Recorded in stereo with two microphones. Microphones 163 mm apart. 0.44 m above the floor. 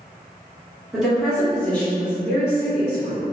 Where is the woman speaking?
Centre (ahead or behind), 1.6 m; by 3.3 s 20° left (ahead or behind), 1.6 m.